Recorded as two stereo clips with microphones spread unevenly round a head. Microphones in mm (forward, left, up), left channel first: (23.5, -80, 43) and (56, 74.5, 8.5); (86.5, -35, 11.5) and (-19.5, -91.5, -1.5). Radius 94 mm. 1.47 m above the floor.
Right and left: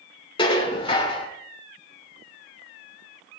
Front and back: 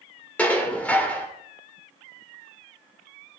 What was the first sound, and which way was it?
Dishes clattering, 45° right.